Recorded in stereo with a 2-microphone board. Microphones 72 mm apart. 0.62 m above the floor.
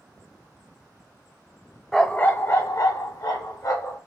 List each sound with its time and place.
1.9 s a dog barking: 5° left (ahead or behind), 0.6 m; by 4.0 s 70° left (ahead or behind), 1.8 m